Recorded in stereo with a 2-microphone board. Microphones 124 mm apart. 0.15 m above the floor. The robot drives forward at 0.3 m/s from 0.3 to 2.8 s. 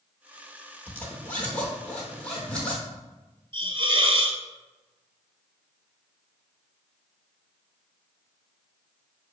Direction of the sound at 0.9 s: 15° left (ahead or behind).